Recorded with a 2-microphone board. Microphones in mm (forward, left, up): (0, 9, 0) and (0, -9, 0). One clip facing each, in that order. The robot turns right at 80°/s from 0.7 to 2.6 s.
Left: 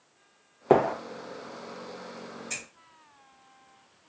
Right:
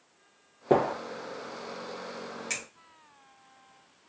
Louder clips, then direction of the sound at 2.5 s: Right 2 dB; 50° right (ahead or behind).